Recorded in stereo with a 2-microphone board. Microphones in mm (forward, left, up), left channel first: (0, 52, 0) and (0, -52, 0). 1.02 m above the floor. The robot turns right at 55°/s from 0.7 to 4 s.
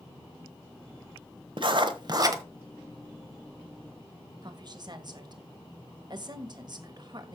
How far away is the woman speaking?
About 1.3 m.